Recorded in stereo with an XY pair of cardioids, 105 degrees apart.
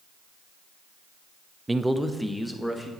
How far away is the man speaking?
About 0.7 m.